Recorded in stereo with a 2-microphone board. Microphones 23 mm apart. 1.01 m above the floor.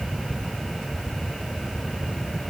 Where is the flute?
No flute in this recording.